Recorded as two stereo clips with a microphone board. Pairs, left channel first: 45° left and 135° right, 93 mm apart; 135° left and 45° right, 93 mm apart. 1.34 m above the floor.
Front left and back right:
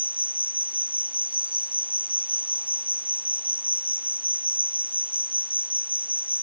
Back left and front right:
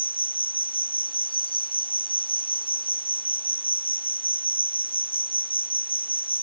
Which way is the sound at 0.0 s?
150° left.